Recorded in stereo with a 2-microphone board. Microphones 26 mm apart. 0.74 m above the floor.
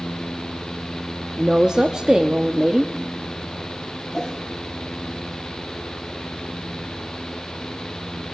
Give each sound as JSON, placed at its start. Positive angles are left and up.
{"t": 1.4, "sound": "a woman speaking", "side_deg": -25, "distance_m": 0.8}
{"t": 4.1, "sound": "a whoosh", "side_deg": 25, "distance_m": 10.0}